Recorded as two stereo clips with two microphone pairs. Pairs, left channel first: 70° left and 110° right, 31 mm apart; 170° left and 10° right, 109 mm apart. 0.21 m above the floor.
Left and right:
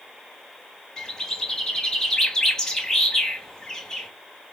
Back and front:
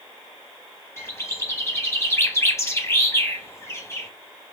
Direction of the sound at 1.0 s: 135° left.